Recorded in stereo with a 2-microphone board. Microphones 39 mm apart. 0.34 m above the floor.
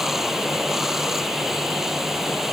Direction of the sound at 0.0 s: 5° right (ahead or behind).